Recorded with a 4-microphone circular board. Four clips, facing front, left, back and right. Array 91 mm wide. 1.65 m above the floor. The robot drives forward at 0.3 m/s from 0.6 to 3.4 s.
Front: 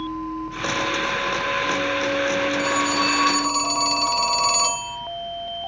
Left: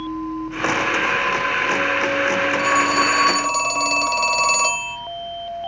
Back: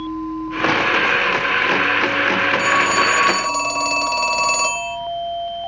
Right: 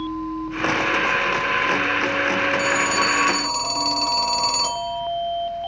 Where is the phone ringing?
150° left, 2.5 m; by 5.0 s 155° left, 3 m.